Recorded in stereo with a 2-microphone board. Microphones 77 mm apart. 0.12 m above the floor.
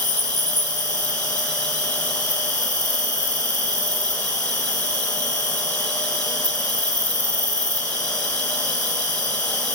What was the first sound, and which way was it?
An insect, 65° left (ahead or behind).